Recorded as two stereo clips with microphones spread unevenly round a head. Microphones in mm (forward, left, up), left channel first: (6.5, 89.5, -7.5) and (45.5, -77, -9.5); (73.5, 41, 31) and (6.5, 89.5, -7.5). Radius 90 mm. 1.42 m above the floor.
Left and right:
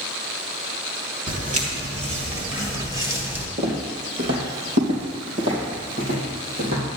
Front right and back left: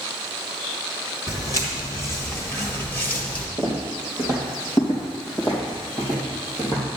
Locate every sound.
1.3 s footsteps: 45° right, 2.5 m; by 3.5 s 5° right, 1.9 m
3.6 s footsteps: 65° right, 2.5 m; by 6.8 s 100° right, 3.5 m